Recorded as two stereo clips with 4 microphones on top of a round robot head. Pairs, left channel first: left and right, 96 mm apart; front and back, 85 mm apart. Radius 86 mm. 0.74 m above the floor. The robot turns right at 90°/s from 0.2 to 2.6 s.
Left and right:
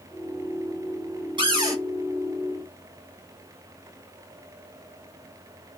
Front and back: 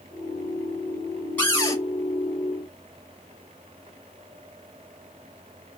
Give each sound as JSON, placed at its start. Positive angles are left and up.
{"t": 1.4, "sound": "a cupboard door", "azimuth_deg": -70, "distance_m": 1.8}